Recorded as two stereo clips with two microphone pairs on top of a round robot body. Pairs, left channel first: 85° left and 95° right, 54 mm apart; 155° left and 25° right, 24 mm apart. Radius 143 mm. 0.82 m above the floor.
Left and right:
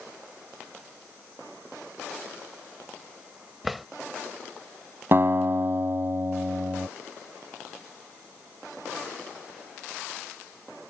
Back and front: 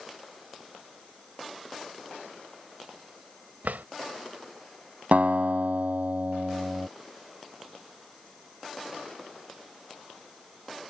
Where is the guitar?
45° right.